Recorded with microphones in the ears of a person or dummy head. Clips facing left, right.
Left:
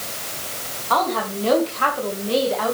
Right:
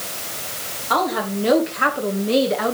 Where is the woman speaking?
20° right (ahead or behind), 3.5 m; by 2.7 s 35° right (ahead or behind), 2 m.